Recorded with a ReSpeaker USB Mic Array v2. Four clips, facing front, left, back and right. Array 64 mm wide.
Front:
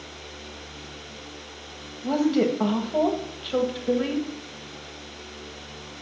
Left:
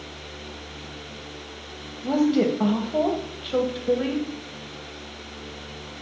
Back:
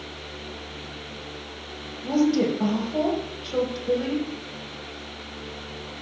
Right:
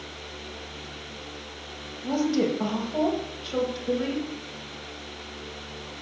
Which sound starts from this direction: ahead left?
A woman speaking, at 2.0 s.